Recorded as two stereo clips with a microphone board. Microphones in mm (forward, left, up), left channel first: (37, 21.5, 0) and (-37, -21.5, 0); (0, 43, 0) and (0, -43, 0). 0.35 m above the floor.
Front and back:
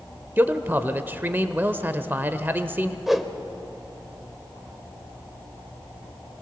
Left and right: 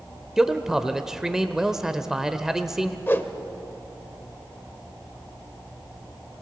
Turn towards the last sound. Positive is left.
turn(degrees=125)